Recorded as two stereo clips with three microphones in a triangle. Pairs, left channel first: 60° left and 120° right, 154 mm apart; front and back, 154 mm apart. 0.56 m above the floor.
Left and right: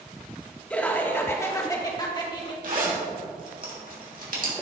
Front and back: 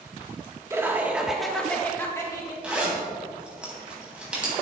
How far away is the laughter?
About 1.2 m.